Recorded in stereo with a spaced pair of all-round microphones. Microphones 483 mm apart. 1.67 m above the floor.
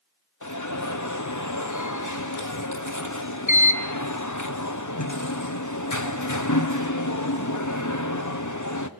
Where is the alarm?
35° left (ahead or behind), 1.3 m.